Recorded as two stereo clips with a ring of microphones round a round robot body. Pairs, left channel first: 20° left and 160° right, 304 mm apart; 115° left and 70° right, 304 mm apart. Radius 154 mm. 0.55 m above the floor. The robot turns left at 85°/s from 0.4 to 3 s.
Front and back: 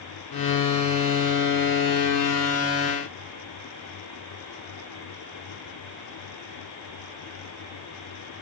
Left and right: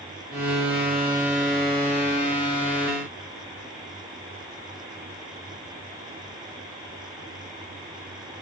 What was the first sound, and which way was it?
Only background noise.